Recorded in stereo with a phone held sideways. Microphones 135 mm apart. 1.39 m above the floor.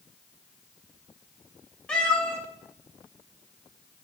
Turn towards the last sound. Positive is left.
turn(degrees=10)  # may be behind; listen again after turning